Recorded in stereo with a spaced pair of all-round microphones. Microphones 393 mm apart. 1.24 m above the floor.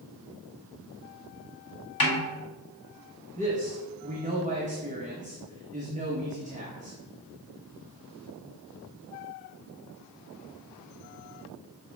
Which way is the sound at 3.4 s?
20° right (ahead or behind).